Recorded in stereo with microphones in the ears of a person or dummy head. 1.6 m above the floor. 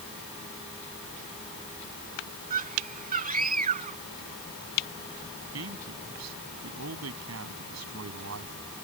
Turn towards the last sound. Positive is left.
turn(degrees=-85)